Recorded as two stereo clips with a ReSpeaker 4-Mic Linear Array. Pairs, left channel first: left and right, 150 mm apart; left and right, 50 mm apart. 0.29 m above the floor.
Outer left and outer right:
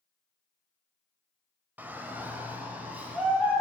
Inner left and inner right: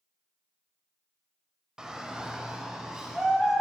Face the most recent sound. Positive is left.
turn(degrees=-10)  # may be behind; listen again after turning